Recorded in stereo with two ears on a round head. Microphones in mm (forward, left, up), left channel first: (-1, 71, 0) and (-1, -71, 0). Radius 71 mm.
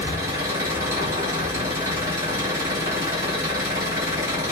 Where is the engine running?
20° right (ahead or behind), 2.5 m.